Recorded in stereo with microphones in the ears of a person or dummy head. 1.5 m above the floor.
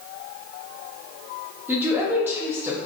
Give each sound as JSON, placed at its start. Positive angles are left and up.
{"t": 1.7, "sound": "a woman speaking", "side_deg": -10, "distance_m": 0.8}